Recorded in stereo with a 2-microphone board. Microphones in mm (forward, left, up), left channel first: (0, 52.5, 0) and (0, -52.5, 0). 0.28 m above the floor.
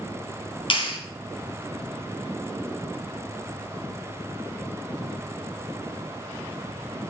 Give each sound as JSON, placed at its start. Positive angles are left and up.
{"t": 0.7, "sound": "a clap", "side_deg": 55, "distance_m": 1.8}